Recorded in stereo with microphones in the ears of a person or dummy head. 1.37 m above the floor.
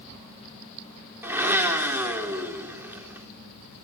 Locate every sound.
1.2 s a blender: 20° right (ahead or behind), 3.5 m